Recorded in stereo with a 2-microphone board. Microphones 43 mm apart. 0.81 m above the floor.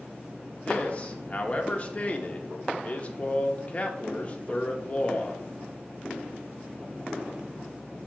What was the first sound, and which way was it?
A man speaking, 30° left (ahead or behind).